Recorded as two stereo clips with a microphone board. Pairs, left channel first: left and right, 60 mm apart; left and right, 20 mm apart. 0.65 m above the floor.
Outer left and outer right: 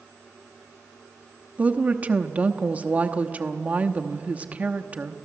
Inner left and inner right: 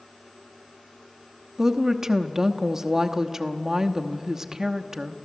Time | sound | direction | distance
1.6 | a woman speaking | 25° right (ahead or behind) | 0.9 m